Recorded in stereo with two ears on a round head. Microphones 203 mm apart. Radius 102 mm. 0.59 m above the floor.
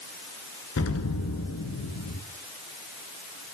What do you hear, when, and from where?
0.8 s an explosion: 65° left (ahead or behind), 1.5 m